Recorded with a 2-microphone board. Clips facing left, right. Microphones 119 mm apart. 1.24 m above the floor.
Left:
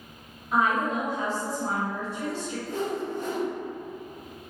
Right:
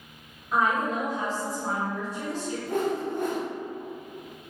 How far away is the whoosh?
About 0.6 m.